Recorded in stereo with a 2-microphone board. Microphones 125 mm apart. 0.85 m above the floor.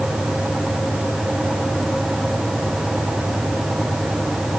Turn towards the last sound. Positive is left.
No sound to turn to.